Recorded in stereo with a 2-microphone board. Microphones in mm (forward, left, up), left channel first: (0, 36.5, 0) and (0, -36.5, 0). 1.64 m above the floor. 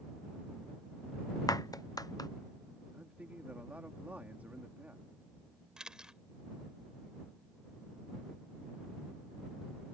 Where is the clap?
55° left (ahead or behind).